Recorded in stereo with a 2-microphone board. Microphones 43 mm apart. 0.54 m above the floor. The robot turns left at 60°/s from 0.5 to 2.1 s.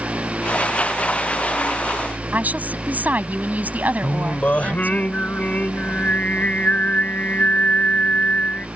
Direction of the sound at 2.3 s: 45° right (ahead or behind).